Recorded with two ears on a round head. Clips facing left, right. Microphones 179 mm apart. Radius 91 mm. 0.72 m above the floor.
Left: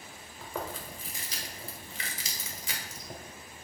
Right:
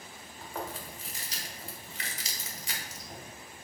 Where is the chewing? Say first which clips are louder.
Left 1 dB; 80° left, 1.4 m.